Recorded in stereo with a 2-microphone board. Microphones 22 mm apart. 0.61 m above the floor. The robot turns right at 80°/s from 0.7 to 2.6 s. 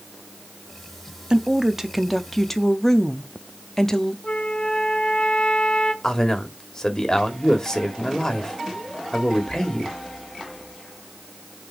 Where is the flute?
45° left (ahead or behind), 0.9 m.